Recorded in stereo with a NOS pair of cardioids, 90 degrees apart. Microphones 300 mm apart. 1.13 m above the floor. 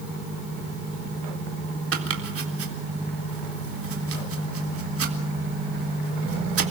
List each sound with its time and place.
1.9 s chopping: 50° right, 3.5 m